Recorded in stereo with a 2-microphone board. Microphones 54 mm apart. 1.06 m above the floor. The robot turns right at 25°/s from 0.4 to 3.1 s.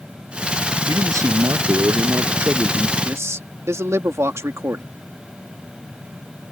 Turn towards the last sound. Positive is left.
turn(degrees=-60)  # may be behind; listen again after turning